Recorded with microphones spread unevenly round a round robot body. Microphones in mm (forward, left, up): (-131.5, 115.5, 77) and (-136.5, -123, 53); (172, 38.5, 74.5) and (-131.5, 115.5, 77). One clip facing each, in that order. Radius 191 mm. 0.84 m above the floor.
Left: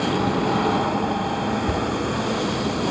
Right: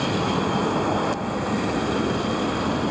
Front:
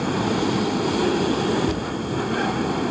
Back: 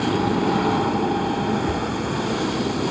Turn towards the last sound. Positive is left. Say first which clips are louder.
# even, even
turn(degrees=80)